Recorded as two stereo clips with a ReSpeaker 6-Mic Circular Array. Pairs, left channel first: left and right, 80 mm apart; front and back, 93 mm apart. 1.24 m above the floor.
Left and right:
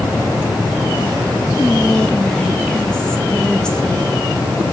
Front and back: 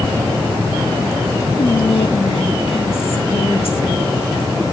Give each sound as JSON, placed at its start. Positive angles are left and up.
{"t": 1.6, "sound": "whispering", "azimuth_deg": 10, "distance_m": 2.5}